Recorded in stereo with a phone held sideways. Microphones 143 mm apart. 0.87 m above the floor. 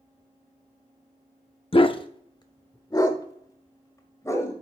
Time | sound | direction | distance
1.7 | a dog barking | 40° left (ahead or behind) | 0.5 m